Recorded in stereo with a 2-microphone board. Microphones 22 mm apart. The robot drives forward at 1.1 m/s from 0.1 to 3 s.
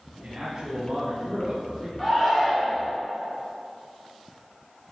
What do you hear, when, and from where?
0.2 s a man speaking: 30° right (ahead or behind), 1.6 m; by 1.9 s 20° right (ahead or behind), 2.5 m
2.0 s a shout: centre (ahead or behind), 1.5 m